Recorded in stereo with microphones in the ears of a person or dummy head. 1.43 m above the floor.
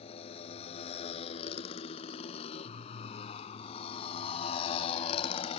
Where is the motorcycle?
35° left (ahead or behind).